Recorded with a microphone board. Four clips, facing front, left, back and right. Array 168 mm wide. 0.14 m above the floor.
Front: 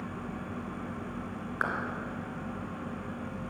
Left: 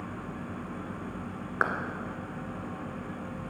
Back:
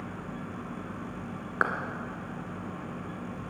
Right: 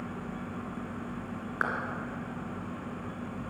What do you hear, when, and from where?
1.6 s a clap: 140° left, 1.6 m